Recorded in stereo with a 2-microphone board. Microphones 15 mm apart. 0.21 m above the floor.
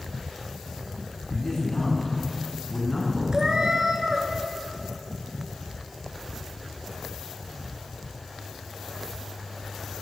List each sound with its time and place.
1.3 s a man speaking: 40° left (ahead or behind), 1.5 m; by 3.2 s 10° left (ahead or behind), 2.5 m
3.3 s a cat meowing: 35° right (ahead or behind), 0.7 m